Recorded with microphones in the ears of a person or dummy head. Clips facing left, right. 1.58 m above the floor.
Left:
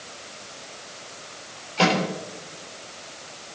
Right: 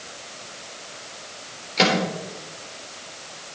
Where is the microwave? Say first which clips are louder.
Even; 30° right (ahead or behind), 4.5 m.